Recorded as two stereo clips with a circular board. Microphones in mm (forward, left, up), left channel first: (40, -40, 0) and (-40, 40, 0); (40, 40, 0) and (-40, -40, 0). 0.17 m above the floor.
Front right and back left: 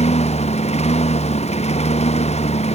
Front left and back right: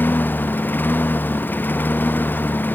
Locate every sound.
0.0 s a lawn mower: 30° right